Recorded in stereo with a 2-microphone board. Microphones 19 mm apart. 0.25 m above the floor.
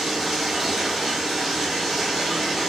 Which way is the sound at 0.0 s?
25° right (ahead or behind).